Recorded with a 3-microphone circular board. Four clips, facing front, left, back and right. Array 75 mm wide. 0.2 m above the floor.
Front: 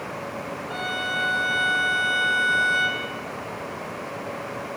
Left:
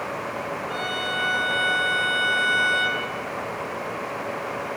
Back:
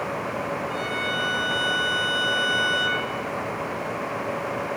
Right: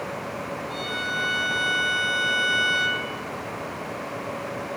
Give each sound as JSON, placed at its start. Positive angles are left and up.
{"t": 0.7, "sound": "a violin", "azimuth_deg": 25, "distance_m": 3.0}